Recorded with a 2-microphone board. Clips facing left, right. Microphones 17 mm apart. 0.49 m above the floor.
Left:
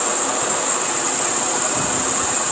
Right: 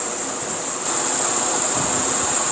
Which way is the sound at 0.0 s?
60° left (ahead or behind).